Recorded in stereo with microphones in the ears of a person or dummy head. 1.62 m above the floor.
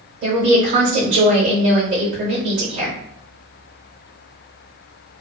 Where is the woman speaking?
45° right (ahead or behind), 0.8 m.